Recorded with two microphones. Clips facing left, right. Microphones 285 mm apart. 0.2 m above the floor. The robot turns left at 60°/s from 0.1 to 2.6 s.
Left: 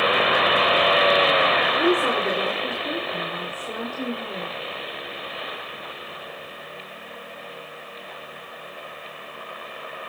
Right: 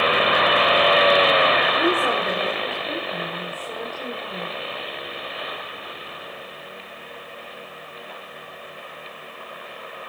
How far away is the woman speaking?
About 9.5 m.